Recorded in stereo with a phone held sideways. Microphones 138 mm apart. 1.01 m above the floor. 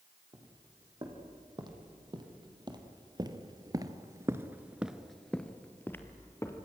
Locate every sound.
0.3 s footsteps: 30° right (ahead or behind), 4 m; by 6.7 s 20° left (ahead or behind), 2.0 m